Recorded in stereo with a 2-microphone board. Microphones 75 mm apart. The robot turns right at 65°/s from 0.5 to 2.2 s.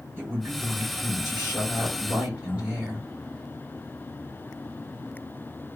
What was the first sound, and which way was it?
A woman speaking, 140° right.